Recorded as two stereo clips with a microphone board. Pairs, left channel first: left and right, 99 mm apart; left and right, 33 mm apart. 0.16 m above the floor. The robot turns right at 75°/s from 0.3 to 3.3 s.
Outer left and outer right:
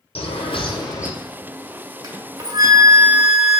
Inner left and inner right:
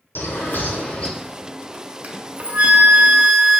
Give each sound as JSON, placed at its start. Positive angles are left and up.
{"t": 0.1, "sound": "a bird", "azimuth_deg": 95, "distance_m": 0.9}
{"t": 2.0, "sound": "a flute", "azimuth_deg": -105, "distance_m": 0.8}